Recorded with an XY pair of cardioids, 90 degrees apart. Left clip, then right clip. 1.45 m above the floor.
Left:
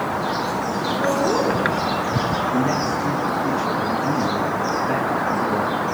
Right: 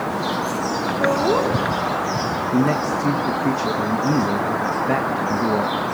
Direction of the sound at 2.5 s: 45° right.